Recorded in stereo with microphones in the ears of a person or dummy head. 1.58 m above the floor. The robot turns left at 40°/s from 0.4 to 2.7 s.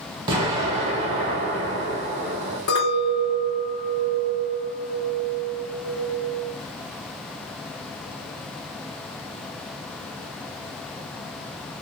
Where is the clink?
65° left (ahead or behind), 1.8 m.